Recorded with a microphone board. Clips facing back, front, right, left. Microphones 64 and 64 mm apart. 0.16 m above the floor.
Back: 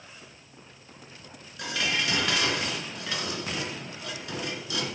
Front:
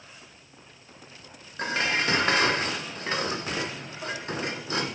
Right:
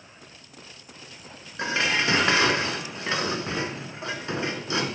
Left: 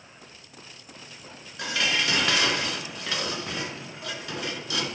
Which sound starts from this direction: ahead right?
Dishes clattering, at 1.6 s.